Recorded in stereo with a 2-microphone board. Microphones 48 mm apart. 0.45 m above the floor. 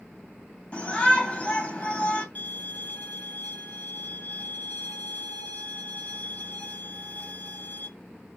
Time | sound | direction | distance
0.7 | a shout | 25° left (ahead or behind) | 2 m
2.4 | a violin | 40° left (ahead or behind) | 1.2 m